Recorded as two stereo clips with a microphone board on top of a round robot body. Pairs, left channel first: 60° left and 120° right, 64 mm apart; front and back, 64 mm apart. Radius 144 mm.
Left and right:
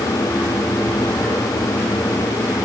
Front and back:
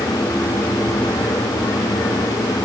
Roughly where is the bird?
No bird in this recording.